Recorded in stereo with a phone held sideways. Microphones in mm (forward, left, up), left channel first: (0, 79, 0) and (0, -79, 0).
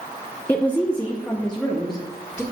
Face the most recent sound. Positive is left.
turn(degrees=5)  # may be behind; listen again after turning